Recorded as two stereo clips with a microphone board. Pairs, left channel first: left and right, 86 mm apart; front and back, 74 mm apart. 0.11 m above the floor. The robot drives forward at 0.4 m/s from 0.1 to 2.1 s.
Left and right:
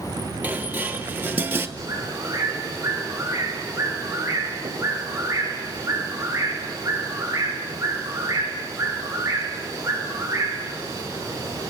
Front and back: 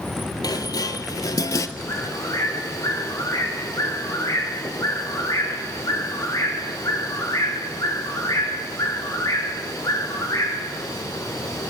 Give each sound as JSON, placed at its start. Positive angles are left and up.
{"t": 0.4, "sound": "dishes clattering", "azimuth_deg": -20, "distance_m": 1.9}
{"t": 1.8, "sound": "a bird", "azimuth_deg": -40, "distance_m": 7.5}